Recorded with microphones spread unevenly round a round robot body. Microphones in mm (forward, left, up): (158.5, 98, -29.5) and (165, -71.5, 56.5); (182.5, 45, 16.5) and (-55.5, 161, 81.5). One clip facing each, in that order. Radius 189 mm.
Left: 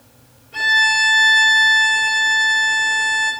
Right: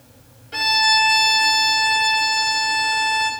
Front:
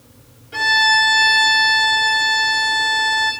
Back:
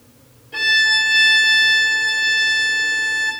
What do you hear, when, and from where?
0.5 s a violin: 105° right, 5 m